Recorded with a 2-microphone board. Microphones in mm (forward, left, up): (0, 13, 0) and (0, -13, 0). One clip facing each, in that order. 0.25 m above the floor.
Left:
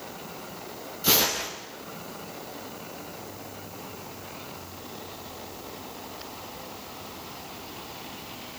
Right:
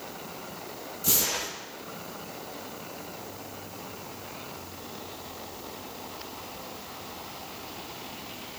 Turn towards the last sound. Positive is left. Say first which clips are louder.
# left 5 dB
turn(degrees=45)  # may be behind; listen again after turning